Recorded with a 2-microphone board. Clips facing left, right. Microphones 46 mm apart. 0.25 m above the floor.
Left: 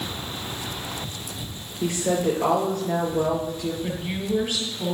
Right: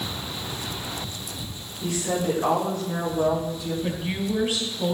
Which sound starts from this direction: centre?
A woman speaking, at 3.8 s.